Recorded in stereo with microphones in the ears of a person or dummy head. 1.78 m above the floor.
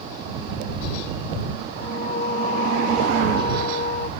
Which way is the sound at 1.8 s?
40° left (ahead or behind).